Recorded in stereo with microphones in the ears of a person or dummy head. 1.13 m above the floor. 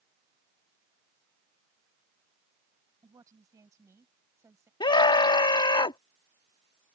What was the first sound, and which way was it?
A woman speaking, 15° right (ahead or behind).